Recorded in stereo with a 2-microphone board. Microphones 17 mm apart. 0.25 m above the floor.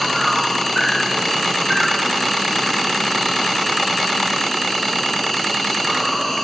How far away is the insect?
About 3.5 m.